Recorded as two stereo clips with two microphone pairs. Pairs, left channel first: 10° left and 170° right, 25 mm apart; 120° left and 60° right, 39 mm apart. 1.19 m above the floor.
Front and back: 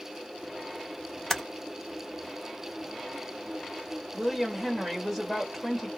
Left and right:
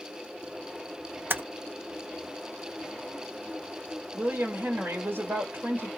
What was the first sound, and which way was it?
Typing on a keyboard, 55° right.